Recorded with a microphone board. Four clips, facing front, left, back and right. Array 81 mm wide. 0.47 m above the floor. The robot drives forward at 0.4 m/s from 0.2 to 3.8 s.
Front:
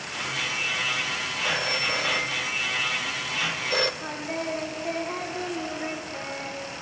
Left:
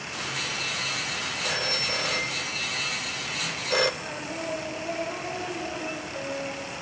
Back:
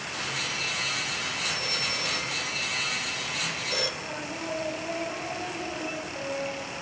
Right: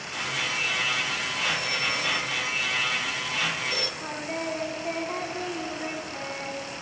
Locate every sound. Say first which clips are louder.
1.4 s a phone ringing: even, front 5 dB; 20° left, 1.4 m; by 3.9 s 60° left, 0.6 m
4.0 s singing: right 2 dB, front 4 dB; 50° right, 3 m